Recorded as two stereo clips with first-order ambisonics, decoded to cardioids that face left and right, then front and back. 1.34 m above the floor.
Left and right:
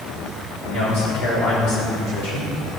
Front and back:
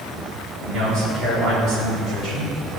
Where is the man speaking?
130° left, 4 m.